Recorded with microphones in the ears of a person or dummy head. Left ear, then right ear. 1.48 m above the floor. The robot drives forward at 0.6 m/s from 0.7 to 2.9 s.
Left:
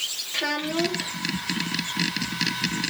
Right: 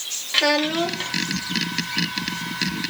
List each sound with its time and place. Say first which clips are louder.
0.3 s a child speaking: right 8 dB; 45° right (ahead or behind), 2 m; by 1.1 s 50° right (ahead or behind), 1.9 m